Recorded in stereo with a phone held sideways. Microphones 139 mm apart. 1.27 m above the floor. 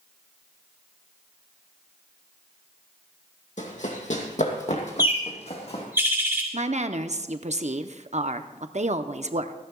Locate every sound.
3.6 s running footsteps: 55° left (ahead or behind), 2 m; by 5.8 s 45° left (ahead or behind), 3 m
5.0 s a bird: 15° right (ahead or behind), 2 m
6.5 s a woman speaking: 50° right (ahead or behind), 0.7 m